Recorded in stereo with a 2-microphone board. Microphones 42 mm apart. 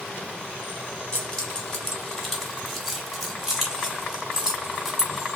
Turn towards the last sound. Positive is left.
turn(degrees=-15)  # may be behind; listen again after turning